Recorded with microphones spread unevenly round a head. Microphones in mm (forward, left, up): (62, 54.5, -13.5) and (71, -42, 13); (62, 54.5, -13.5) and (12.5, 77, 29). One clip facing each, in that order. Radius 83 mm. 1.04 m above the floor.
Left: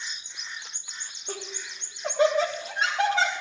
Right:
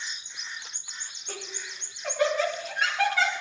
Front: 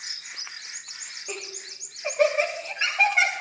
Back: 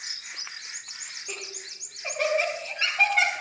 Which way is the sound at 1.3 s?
35° left.